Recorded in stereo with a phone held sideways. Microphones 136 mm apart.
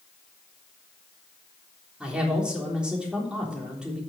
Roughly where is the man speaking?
Centre.